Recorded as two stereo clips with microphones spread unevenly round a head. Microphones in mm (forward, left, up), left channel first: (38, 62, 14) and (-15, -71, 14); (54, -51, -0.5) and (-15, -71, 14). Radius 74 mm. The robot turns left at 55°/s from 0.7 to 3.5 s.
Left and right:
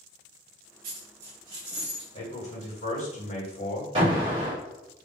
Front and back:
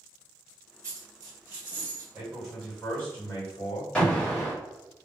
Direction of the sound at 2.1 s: 115° left.